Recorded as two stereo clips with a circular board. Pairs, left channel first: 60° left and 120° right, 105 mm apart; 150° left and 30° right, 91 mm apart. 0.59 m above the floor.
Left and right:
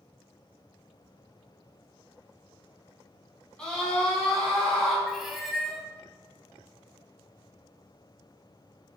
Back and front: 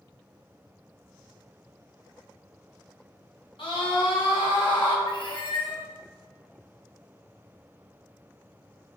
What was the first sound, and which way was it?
A scream, 140° left.